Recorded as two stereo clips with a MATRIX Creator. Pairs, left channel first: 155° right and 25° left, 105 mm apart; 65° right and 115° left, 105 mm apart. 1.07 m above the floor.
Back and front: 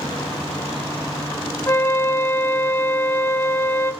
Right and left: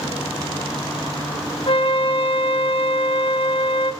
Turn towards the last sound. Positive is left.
turn(degrees=-95)